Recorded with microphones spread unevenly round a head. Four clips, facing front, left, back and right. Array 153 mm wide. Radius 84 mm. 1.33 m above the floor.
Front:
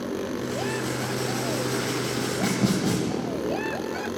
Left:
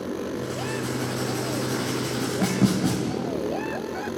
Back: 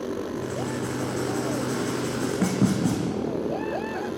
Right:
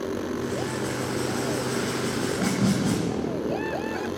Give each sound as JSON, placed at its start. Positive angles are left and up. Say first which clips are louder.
{"t": 0.4, "sound": "writing", "louder": "right 1 dB, front 1 dB", "azimuth_deg": 155, "distance_m": 3.0}